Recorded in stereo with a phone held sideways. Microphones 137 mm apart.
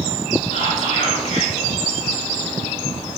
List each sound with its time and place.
0.5 s whispering: 55° left (ahead or behind), 4 m